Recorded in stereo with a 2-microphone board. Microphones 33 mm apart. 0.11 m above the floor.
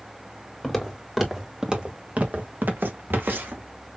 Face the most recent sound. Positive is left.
turn(degrees=-80)